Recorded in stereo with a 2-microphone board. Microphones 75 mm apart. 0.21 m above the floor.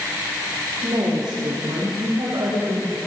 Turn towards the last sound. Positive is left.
turn(degrees=-80)